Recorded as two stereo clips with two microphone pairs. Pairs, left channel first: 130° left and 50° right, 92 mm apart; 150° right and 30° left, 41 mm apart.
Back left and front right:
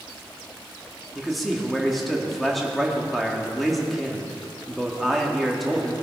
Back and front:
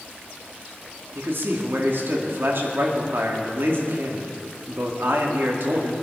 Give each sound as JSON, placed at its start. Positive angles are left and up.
{"t": 1.1, "sound": "a man speaking", "azimuth_deg": 45, "distance_m": 2.0}